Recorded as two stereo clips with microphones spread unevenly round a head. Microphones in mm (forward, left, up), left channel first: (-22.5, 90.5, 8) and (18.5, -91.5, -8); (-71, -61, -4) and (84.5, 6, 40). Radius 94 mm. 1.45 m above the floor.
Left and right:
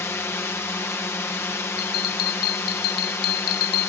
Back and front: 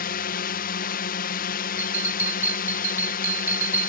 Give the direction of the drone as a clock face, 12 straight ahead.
6 o'clock.